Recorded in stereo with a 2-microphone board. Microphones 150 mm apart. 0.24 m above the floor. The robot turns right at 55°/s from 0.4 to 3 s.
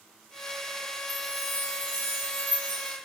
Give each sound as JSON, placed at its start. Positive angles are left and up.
{"t": 1.1, "sound": "a chime", "azimuth_deg": 160, "distance_m": 1.1}